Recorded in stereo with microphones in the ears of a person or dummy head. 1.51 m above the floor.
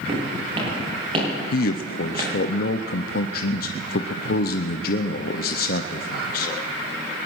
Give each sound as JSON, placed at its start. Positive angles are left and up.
{"t": 0.1, "sound": "footsteps", "side_deg": -35, "distance_m": 6.5}
{"t": 1.5, "sound": "a man speaking", "side_deg": 55, "distance_m": 0.6}